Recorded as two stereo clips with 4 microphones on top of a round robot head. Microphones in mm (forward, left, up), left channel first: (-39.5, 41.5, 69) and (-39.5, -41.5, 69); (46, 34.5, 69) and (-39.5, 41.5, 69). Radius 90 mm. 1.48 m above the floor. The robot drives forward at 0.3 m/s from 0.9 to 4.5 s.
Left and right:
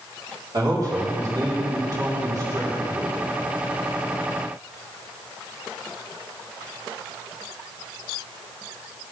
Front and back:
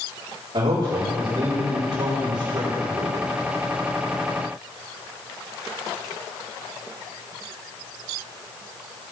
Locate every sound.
0.5 s a man speaking: 130° right, 5 m; by 3.2 s 135° right, 5.5 m